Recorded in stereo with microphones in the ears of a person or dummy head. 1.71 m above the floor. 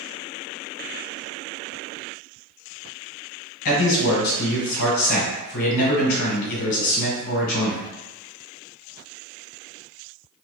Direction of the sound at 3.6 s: 65° left (ahead or behind).